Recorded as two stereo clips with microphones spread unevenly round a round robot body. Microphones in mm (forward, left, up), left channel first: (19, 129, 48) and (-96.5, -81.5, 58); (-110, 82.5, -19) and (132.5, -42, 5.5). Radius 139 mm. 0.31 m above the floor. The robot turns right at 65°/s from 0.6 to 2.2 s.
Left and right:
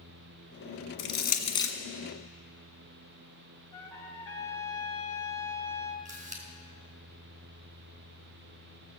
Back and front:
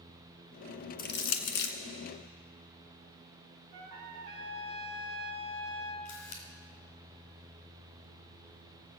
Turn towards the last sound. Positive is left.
turn(degrees=180)